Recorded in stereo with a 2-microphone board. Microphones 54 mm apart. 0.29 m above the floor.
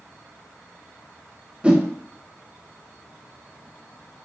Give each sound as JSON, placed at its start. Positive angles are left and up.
{"t": 1.6, "sound": "a whoosh", "side_deg": -20, "distance_m": 0.8}